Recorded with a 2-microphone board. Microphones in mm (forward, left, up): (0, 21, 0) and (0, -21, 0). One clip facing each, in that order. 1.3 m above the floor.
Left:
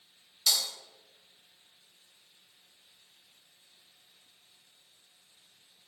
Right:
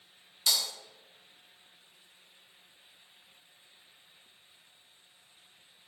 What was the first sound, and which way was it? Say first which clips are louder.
Breaking glass: even; 5° right (ahead or behind).